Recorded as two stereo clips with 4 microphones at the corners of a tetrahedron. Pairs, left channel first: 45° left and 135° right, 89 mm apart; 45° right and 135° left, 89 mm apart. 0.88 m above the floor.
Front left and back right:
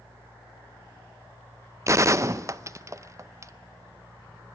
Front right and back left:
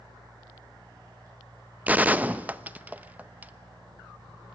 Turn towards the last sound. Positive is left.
turn(degrees=-165)